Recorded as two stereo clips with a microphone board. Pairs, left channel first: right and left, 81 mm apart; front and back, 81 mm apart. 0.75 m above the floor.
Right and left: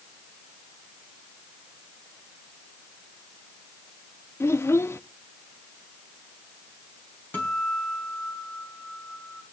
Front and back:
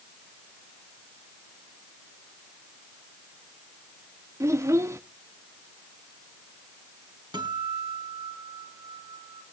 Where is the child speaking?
140° right, 0.5 m.